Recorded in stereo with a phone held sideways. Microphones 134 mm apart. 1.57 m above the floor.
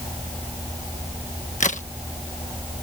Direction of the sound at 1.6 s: 65° left (ahead or behind).